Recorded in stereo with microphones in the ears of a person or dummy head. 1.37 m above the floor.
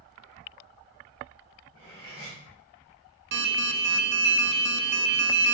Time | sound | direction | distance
1.7 | cutlery clinking | 25° left (ahead or behind) | 3 m
3.3 | an alarm | 50° right (ahead or behind) | 0.6 m